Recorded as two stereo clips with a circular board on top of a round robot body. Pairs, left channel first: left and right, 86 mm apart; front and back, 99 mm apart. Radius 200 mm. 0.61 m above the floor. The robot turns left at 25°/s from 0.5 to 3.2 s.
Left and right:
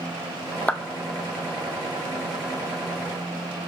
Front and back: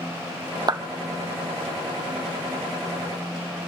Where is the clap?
160° left, 0.9 m; by 0.8 s 155° left, 0.9 m.